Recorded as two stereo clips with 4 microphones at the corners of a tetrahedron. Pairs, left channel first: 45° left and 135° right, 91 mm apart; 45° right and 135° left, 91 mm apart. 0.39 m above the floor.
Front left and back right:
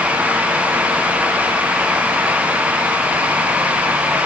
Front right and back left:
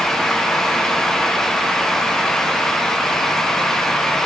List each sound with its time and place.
Only background noise.